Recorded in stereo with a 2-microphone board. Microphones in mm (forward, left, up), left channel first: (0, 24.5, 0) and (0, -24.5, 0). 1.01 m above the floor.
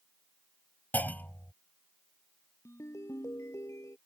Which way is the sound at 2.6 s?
70° left (ahead or behind).